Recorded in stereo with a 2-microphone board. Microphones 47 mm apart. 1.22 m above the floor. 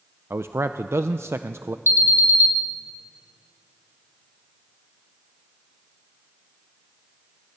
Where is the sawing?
I don't hear sawing.